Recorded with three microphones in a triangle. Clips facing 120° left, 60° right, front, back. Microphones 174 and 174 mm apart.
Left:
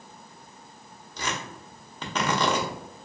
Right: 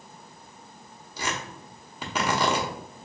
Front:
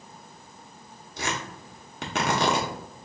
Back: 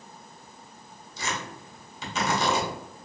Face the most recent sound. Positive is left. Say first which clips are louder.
# even, front 2 dB
turn(degrees=20)